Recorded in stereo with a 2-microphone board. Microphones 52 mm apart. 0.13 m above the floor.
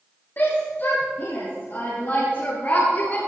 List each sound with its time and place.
0.4 s a shout: 45° left (ahead or behind), 5.5 m; by 3.2 s 40° left (ahead or behind), 2.5 m